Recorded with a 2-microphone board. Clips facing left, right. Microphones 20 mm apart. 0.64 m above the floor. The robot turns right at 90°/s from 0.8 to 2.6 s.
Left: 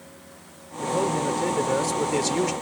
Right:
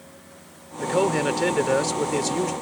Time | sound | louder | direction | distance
0.8 | a man speaking | right 3 dB | 120° right | ?